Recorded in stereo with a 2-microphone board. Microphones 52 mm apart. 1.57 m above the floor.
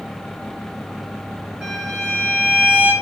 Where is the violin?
20° right (ahead or behind), 1.0 m.